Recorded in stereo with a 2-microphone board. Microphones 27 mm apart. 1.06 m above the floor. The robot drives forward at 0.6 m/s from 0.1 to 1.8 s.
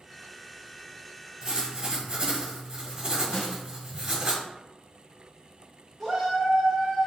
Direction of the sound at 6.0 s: 10° left (ahead or behind).